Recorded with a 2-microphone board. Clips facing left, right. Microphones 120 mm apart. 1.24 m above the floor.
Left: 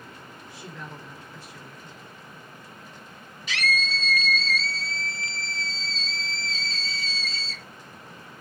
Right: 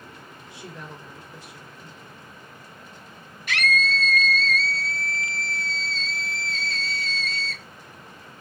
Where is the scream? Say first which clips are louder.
Right 4 dB; 55° right (ahead or behind), 0.9 m.